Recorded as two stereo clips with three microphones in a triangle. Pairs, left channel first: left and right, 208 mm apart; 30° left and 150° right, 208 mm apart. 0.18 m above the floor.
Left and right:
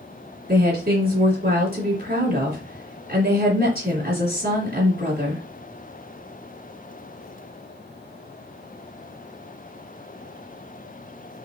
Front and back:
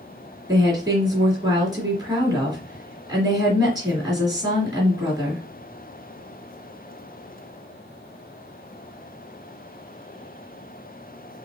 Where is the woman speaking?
85° right, 2.5 m.